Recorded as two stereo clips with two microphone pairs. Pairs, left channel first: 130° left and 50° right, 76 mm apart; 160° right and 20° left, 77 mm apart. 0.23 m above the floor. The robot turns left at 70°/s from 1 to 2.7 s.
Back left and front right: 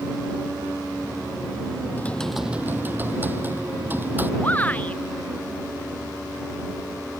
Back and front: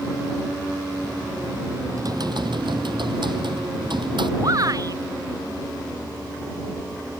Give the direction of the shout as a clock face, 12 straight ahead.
10 o'clock.